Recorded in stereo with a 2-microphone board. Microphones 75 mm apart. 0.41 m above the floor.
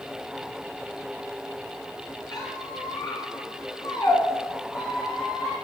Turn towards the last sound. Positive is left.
turn(degrees=65)  # may be behind; listen again after turning